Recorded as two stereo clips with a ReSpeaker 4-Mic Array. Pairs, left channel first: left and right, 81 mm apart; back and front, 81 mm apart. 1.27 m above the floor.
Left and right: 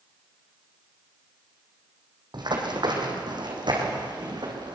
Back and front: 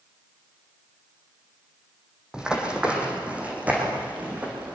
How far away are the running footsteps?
About 3.5 m.